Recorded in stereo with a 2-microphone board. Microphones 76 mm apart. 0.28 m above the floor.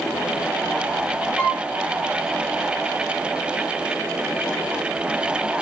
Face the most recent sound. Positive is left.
turn(degrees=10)  # may be behind; listen again after turning